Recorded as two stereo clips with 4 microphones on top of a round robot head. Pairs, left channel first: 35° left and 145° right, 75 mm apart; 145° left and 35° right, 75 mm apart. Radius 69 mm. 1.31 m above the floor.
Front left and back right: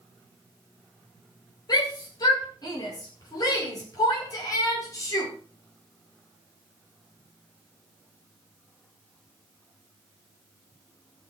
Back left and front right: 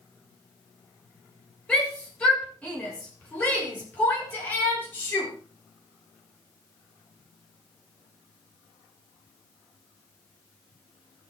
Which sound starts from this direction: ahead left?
A shout, at 1.7 s.